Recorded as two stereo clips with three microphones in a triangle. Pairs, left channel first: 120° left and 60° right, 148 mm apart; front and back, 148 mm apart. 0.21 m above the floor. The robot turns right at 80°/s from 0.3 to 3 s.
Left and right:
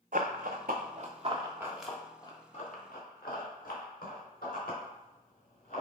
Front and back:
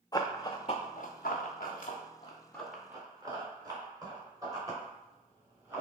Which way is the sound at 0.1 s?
60° right.